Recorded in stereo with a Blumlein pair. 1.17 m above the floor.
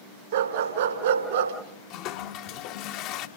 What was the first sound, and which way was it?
A dog barking, 60° right.